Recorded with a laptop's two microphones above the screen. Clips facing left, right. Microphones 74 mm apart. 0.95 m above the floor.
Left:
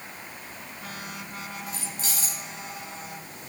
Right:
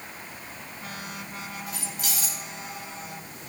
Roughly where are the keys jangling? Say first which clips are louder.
Even; left.